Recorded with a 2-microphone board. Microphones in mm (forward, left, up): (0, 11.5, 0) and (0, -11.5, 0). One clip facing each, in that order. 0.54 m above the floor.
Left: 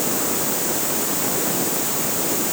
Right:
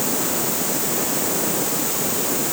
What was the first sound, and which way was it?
Only background noise.